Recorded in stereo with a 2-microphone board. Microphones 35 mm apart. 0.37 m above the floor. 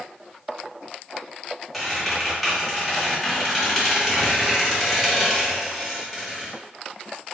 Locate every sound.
1.7 s a squeak: centre (ahead or behind), 1.6 m